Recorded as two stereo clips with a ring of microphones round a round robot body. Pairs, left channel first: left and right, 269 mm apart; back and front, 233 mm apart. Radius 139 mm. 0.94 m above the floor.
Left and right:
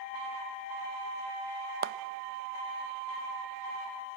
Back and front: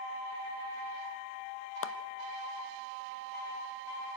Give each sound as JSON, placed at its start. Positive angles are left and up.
{"t": 1.8, "sound": "a clap", "azimuth_deg": -145, "distance_m": 0.7}